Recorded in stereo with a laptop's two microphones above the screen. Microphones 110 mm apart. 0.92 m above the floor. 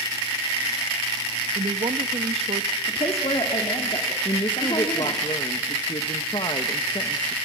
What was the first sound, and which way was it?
A woman speaking, 70° right (ahead or behind).